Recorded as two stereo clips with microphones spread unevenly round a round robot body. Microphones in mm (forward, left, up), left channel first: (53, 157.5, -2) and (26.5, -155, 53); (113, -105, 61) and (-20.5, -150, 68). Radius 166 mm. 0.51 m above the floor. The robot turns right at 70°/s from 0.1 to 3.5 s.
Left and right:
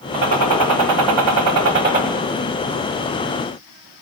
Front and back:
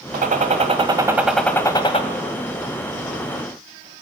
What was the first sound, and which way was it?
A gunshot, 155° right.